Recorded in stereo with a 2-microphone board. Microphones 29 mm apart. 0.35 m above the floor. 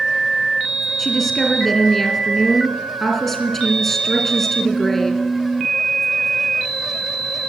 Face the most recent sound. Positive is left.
turn(degrees=10)  # may be behind; listen again after turning